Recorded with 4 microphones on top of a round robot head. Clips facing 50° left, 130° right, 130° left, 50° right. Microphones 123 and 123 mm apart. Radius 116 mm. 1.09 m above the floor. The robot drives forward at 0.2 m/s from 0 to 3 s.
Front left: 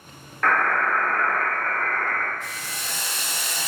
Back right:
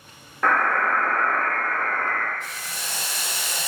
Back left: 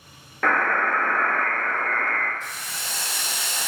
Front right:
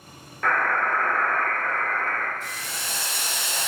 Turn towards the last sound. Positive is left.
turn(degrees=-110)